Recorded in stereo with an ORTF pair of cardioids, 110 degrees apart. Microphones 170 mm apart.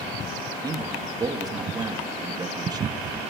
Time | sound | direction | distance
0.6 | a man speaking | 25° right | 2.5 m